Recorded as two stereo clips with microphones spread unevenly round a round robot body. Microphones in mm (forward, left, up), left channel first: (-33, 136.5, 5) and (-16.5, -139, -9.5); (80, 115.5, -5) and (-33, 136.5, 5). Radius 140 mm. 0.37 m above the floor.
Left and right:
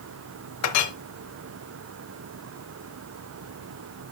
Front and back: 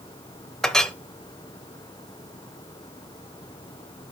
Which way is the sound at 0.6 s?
70° left.